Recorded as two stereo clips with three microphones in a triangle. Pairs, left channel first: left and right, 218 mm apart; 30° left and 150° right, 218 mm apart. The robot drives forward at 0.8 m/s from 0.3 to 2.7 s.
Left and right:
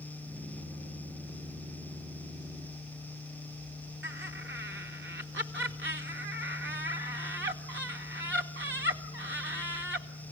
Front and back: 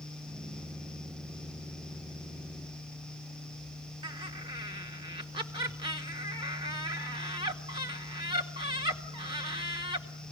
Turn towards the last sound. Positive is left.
turn(degrees=-85)